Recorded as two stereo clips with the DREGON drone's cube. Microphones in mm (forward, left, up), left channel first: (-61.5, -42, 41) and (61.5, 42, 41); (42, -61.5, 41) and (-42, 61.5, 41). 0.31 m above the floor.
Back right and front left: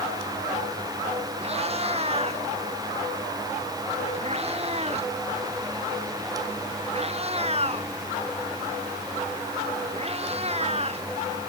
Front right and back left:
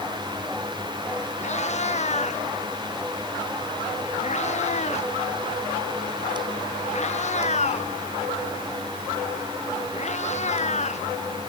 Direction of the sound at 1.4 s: 15° right.